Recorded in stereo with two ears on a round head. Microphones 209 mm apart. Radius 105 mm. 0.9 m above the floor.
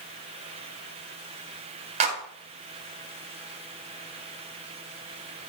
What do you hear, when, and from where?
2.0 s a clap: 30° right (ahead or behind), 1.9 m